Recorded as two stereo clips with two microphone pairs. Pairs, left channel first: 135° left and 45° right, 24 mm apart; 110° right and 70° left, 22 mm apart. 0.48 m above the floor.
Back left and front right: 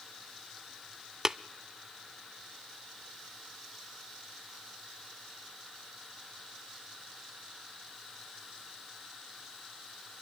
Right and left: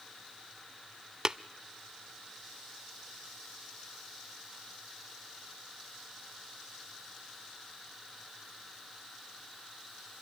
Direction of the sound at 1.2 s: 15° left.